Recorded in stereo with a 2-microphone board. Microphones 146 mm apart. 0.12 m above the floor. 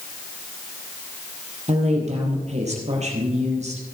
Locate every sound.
1.7 s a woman speaking: 50° right (ahead or behind), 3.5 m